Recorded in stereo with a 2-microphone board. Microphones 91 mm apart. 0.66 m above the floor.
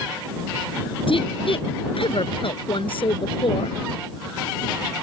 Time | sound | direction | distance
1.1 | a woman speaking | 70° left (ahead or behind) | ?